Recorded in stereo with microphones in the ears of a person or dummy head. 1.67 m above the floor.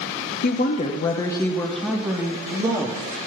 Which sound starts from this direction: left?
A woman speaking, at 0.4 s.